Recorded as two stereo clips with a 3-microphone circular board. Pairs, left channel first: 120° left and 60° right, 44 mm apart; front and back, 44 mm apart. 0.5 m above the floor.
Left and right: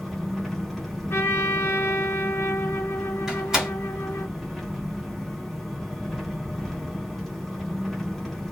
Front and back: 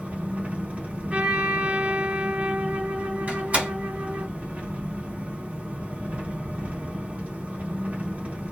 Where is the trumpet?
120° left, 0.7 m.